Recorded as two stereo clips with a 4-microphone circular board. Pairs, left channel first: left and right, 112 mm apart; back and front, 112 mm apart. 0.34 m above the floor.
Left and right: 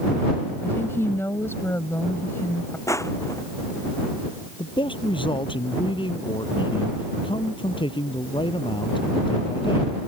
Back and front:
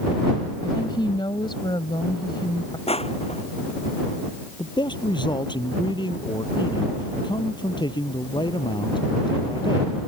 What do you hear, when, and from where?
0.6 s a woman speaking: 150° left
2.9 s crushing: 155° left
4.6 s a man speaking: 130° left